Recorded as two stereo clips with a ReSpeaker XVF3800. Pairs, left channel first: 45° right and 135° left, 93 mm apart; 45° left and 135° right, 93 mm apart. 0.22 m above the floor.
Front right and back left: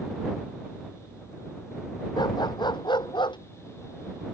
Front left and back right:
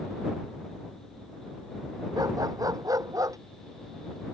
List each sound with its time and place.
2.2 s a dog barking: 85° right; by 3.4 s 80° right